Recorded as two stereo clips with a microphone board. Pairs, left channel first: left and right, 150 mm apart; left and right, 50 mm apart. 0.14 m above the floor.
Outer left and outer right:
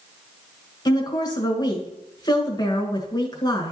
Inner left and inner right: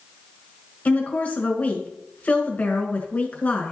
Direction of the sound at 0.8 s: 30° left (ahead or behind).